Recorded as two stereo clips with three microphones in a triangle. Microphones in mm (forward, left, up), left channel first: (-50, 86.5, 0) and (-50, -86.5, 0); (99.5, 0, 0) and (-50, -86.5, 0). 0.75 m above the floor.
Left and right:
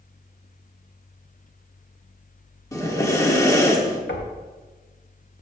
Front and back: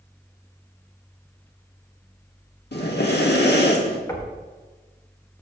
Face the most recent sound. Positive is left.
turn(degrees=100)